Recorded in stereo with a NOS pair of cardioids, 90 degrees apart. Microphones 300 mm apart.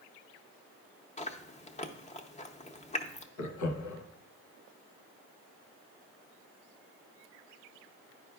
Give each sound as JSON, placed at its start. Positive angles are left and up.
{"t": 1.2, "sound": "chewing", "azimuth_deg": 20, "distance_m": 0.7}
{"t": 3.4, "sound": "laughter", "azimuth_deg": 65, "distance_m": 1.0}